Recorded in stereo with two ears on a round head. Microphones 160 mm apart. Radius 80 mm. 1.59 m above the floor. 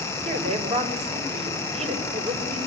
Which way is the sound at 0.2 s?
40° right (ahead or behind).